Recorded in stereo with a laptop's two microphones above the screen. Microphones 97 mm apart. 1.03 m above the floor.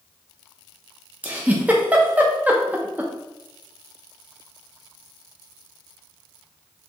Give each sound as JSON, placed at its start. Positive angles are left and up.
{"t": 1.2, "sound": "a giggle", "side_deg": -15, "distance_m": 0.5}